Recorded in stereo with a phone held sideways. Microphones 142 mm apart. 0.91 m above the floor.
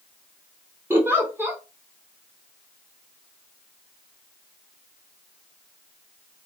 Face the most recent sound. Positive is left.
turn(degrees=-15)  # may be behind; listen again after turning